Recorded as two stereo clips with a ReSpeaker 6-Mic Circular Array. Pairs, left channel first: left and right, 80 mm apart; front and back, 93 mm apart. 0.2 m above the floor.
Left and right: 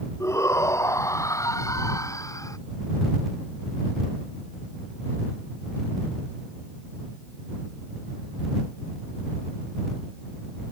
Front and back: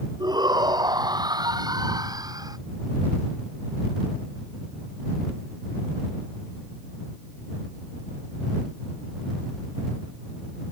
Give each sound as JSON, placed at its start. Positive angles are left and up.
{"t": 0.2, "sound": "a shout", "azimuth_deg": 140}